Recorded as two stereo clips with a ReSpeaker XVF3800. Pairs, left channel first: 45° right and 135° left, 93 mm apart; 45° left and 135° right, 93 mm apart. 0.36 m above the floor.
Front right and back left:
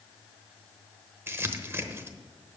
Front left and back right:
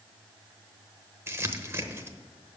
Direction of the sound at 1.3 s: 175° right.